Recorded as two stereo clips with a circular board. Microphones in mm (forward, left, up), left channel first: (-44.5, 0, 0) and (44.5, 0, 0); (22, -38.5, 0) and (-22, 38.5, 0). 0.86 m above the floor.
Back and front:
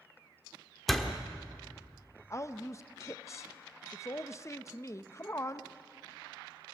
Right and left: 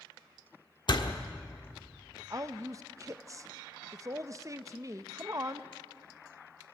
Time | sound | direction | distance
0.9 | a door slam | 90° right | 1.4 m
2.3 | a woman speaking | 145° left | 0.7 m